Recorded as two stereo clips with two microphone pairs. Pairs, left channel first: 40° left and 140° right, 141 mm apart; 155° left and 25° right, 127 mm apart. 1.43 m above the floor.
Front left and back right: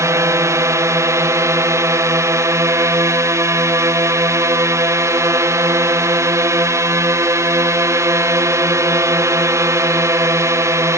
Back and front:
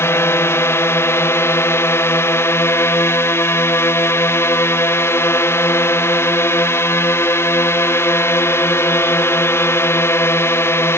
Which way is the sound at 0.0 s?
170° right.